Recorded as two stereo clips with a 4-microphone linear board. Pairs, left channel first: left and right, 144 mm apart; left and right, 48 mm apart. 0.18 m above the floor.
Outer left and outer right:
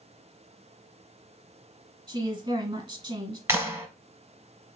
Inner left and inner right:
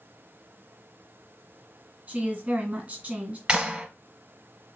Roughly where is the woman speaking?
Right.